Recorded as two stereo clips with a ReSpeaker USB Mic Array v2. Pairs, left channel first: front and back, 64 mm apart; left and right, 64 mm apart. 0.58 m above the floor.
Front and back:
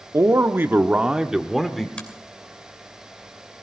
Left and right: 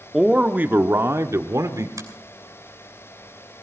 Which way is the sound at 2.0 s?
70° right.